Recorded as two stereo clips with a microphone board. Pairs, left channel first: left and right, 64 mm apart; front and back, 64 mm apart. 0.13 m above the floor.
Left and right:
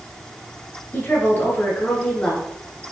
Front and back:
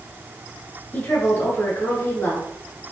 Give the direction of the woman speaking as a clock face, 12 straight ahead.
10 o'clock.